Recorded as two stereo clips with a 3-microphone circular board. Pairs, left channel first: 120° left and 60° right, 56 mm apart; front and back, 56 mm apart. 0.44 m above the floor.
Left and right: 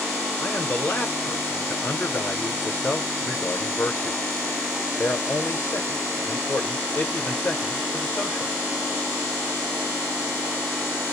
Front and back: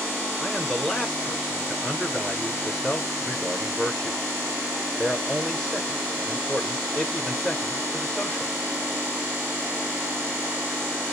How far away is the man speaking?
About 1.2 m.